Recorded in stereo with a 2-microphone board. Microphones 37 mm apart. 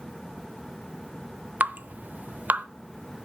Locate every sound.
1.6 s dripping: 55° right (ahead or behind), 0.5 m